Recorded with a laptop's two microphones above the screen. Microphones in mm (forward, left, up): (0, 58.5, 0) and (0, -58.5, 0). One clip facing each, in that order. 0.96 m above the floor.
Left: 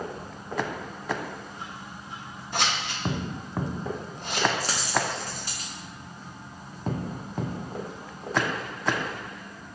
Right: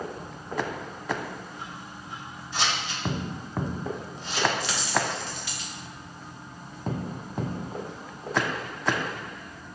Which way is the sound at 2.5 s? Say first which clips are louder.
Left 1 dB; 60° left (ahead or behind).